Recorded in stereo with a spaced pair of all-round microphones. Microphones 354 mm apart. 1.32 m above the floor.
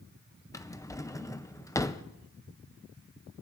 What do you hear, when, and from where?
0.5 s a drawer: 10° left (ahead or behind), 0.5 m